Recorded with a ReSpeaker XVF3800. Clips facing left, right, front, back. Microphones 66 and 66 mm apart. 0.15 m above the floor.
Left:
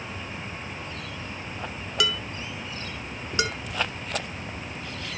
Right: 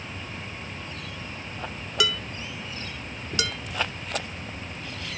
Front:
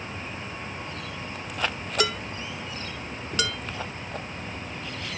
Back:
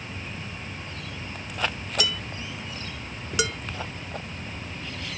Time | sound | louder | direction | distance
2.0 | dishes clattering | right 1 dB, front 4 dB | straight ahead | 1.2 m
3.4 | dishes clattering | left 4 dB, back 2 dB | 115° left | 1.0 m